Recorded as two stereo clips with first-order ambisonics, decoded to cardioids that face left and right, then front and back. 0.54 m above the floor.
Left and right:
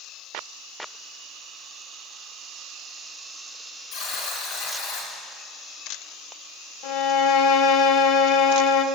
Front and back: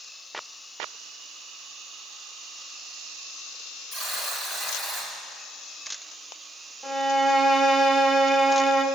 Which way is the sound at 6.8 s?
80° left.